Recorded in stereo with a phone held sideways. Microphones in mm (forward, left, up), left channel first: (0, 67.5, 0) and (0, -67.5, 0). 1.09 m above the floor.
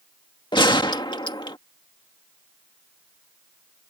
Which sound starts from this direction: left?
A gunshot, at 0.5 s.